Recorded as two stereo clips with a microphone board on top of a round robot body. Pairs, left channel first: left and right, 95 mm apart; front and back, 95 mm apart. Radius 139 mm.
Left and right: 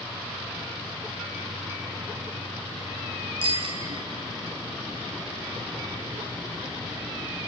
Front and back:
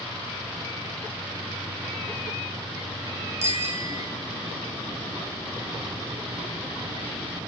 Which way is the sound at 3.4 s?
115° right.